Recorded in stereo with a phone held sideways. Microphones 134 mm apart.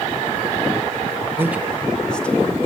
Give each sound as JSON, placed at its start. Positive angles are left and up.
{"t": 1.4, "sound": "a man speaking", "side_deg": -20, "distance_m": 0.7}